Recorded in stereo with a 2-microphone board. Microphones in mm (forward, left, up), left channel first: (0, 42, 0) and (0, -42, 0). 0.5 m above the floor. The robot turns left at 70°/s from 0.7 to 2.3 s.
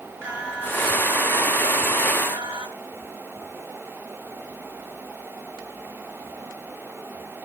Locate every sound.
0.2 s singing: 15° right, 8 m; by 2.7 s 125° right, 8 m